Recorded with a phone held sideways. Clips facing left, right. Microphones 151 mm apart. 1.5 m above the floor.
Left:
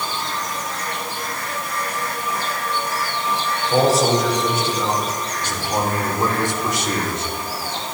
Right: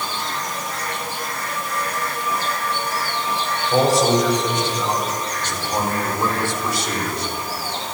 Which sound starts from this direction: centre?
A man speaking, at 3.7 s.